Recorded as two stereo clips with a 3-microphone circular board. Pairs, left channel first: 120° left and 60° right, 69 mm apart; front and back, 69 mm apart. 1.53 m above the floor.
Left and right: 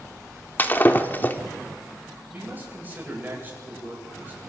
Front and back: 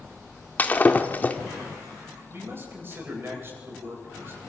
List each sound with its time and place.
0.6 s breaking glass: 60° left, 1.8 m
2.3 s a man speaking: 125° right, 9.5 m